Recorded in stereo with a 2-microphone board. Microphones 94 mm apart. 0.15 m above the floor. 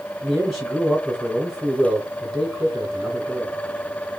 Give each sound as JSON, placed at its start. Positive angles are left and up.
{"t": 0.2, "sound": "a man speaking", "side_deg": 0, "distance_m": 1.7}